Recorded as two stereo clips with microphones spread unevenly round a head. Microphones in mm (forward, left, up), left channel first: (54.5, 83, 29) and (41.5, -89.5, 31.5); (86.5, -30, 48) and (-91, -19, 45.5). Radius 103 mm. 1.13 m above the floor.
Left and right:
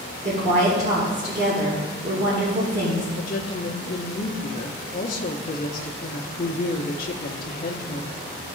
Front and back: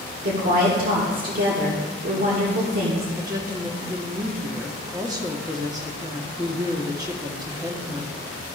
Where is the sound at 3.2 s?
110° left, 1.1 m.